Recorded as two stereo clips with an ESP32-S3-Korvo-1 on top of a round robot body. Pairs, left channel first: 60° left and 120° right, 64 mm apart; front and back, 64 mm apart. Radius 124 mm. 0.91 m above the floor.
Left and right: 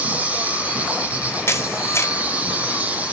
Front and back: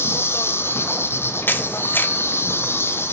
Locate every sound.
0.0 s an insect: 50° right, 0.8 m
1.5 s a camera shutter: 45° left, 1.0 m